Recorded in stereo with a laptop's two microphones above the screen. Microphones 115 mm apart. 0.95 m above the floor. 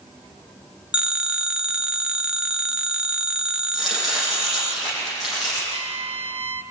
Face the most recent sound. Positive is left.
turn(degrees=-55)  # may be behind; listen again after turning